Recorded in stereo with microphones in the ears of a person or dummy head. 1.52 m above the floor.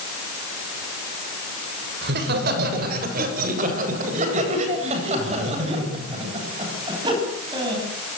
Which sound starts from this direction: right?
Laughter, at 2.0 s.